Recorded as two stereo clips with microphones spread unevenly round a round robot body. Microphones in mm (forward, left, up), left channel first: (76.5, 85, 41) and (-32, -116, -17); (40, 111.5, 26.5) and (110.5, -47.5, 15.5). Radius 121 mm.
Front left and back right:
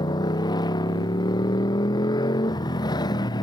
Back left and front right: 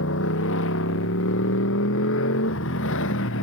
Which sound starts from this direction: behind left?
A motorcycle, at 0.0 s.